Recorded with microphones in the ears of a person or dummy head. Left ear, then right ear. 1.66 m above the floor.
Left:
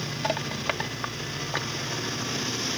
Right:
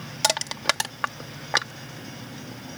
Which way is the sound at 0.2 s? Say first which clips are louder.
Right 5 dB; 85° right.